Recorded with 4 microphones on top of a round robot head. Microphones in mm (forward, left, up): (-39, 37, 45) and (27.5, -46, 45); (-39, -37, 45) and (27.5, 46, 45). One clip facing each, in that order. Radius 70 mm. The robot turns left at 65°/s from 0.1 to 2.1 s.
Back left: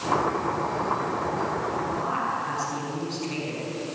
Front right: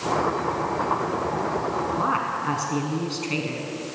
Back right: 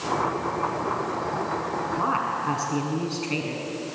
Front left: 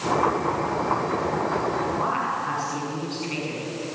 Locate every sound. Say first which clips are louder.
2.0 s a woman speaking: front right 3 dB, even; 70° right, 6 m; by 3.6 s 80° right, 6 m